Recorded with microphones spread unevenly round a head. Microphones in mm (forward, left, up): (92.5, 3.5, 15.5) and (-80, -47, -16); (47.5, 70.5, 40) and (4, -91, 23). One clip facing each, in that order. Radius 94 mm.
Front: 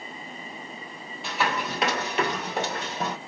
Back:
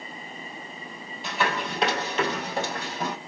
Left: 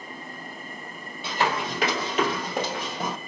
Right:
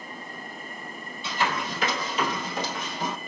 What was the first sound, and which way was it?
Running footsteps, 100° left.